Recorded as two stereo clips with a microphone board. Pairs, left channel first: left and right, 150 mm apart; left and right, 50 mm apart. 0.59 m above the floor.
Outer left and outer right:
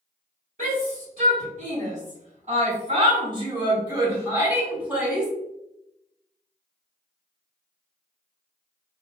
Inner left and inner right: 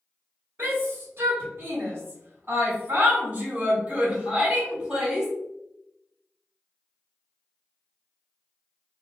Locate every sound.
0.6 s a shout: 55° right (ahead or behind), 1.7 m; by 5.3 s 5° right (ahead or behind), 1.9 m